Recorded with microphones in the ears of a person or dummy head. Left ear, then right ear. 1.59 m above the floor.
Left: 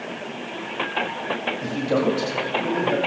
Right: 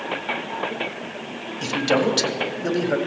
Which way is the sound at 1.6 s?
80° right.